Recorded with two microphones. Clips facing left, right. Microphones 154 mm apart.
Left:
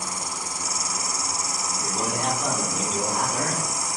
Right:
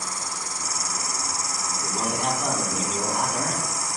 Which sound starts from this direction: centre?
A man speaking, at 1.7 s.